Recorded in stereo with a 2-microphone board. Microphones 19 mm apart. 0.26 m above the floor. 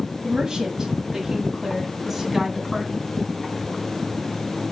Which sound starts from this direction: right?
A woman speaking, at 0.2 s.